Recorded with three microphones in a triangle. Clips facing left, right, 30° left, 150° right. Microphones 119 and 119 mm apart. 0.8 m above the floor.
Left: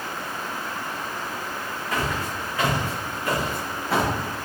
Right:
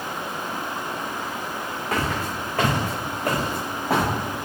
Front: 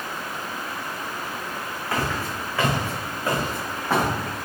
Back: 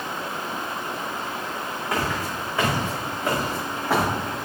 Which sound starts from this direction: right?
Footsteps, at 1.9 s.